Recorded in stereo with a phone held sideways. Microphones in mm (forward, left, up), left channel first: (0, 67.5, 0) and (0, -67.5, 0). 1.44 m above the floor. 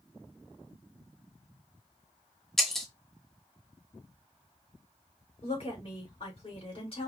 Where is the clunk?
I don't hear a clunk.